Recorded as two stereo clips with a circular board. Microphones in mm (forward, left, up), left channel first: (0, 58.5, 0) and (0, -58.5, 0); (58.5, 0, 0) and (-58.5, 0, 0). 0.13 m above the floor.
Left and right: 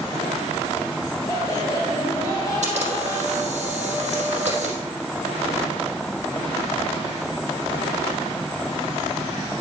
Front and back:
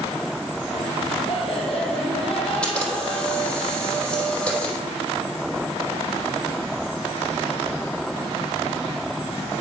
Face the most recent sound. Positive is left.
turn(degrees=-80)